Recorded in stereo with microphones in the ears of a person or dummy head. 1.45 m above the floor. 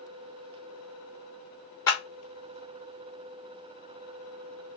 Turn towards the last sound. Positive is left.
turn(degrees=20)  # may be behind; listen again after turning